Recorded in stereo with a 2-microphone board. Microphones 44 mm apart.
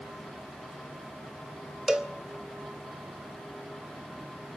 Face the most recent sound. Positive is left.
turn(degrees=-15)  # may be behind; listen again after turning